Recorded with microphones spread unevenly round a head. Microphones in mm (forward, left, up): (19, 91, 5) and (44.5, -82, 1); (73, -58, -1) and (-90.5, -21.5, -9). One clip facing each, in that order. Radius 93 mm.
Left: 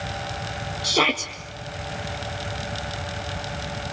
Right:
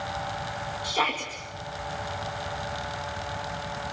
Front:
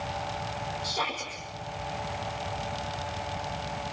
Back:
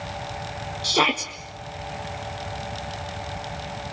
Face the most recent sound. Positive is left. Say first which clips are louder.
# left 7 dB, back 9 dB
turn(degrees=140)